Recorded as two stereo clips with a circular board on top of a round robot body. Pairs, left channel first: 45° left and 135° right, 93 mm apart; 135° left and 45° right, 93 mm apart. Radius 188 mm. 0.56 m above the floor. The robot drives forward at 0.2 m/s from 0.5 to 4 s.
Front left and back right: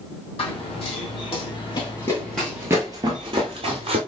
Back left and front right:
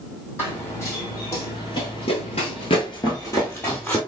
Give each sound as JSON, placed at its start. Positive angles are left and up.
{"t": 0.4, "sound": "running footsteps", "azimuth_deg": 70, "distance_m": 1.7}